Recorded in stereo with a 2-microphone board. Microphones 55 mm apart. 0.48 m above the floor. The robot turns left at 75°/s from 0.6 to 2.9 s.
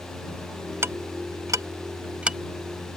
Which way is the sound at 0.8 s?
50° right (ahead or behind).